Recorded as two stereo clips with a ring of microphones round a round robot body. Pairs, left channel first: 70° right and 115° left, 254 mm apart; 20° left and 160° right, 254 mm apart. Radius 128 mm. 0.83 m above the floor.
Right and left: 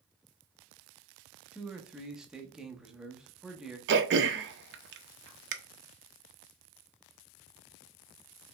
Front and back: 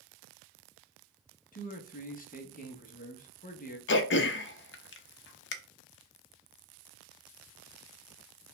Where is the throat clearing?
65° left, 0.6 m.